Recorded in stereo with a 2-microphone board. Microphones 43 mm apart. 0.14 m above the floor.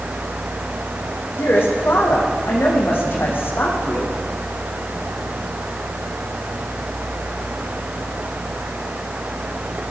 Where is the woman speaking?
60° left (ahead or behind), 7.5 m.